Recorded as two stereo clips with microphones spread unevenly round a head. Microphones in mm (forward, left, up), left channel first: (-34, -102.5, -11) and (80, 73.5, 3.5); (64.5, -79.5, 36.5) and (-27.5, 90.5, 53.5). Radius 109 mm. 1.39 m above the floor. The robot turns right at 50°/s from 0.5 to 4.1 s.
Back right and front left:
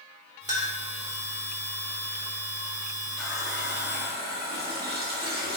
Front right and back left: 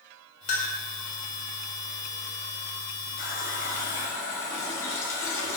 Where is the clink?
15° right, 2.5 m; by 0.7 s 5° right, 2.5 m.